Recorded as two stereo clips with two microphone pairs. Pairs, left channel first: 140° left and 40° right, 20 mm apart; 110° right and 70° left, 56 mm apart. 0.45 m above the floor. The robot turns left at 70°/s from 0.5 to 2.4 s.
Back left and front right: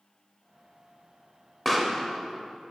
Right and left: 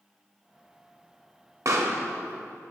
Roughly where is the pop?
Ahead left.